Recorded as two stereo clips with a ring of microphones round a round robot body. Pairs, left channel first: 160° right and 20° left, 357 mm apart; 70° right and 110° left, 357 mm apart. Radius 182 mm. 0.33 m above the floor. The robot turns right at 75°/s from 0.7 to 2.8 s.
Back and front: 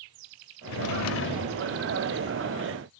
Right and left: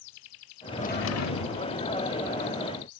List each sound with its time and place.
0.7 s a drawer: 145° right, 0.8 m; by 1.7 s 70° right, 0.8 m